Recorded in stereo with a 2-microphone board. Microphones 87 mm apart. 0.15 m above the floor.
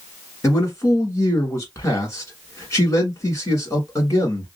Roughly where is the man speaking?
Left.